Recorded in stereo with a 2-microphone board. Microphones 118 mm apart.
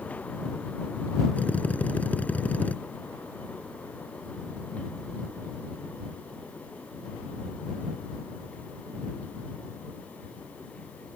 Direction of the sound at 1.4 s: 15° left (ahead or behind).